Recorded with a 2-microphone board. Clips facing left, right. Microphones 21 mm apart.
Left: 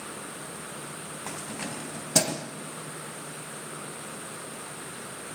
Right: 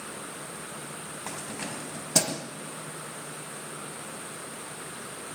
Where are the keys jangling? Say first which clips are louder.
Even; centre (ahead or behind), 2 m; by 2.5 s 10° left (ahead or behind), 1.7 m.